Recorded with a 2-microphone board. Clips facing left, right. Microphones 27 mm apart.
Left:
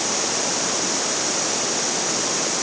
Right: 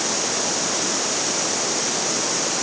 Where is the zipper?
I don't hear a zipper.